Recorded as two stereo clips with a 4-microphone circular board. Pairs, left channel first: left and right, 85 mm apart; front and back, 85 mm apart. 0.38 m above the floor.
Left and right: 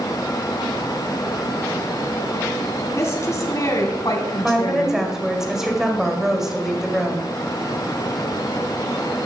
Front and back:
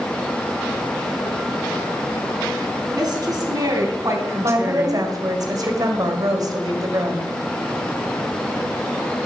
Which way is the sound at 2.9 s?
145° left.